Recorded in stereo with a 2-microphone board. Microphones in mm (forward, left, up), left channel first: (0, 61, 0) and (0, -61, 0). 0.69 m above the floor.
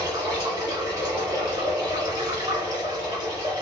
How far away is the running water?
About 1.4 m.